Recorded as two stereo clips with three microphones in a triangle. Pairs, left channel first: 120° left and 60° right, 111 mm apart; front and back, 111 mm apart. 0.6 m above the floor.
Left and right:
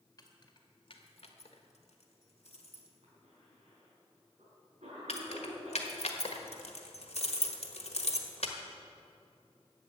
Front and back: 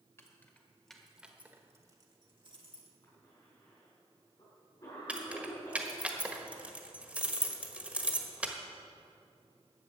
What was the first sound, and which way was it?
Keys jangling, 65° left.